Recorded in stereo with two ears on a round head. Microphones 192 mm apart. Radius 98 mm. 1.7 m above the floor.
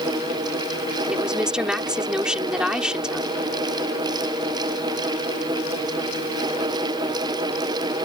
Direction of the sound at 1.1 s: 5° right (ahead or behind).